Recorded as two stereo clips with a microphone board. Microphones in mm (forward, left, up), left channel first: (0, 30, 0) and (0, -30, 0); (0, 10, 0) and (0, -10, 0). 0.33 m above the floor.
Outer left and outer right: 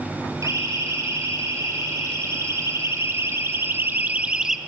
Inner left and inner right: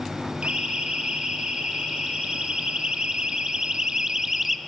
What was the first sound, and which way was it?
A siren, 60° right (ahead or behind).